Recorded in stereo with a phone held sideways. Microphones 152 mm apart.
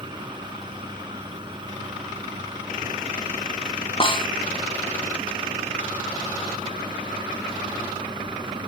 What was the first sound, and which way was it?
A fan, 35° right (ahead or behind).